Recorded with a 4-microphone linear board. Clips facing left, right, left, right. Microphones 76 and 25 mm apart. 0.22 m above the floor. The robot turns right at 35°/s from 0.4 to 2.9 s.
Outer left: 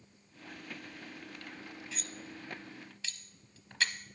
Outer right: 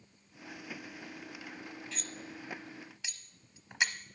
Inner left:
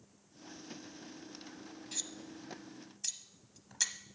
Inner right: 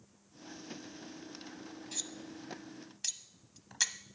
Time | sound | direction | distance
1.9 | cutlery clinking | centre (ahead or behind) | 0.7 m